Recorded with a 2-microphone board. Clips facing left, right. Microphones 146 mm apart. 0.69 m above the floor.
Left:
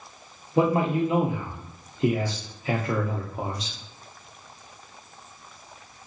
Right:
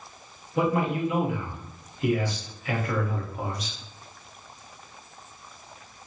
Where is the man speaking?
30° left (ahead or behind), 0.5 m.